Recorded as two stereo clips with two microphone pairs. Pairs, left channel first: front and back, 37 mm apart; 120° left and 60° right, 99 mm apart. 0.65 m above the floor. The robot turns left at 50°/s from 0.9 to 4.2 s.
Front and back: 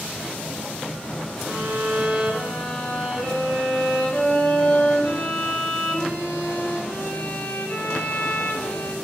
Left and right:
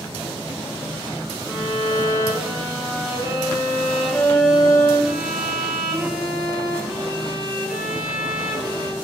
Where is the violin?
170° left, 3.5 m; by 8.9 s 30° left, 3.5 m.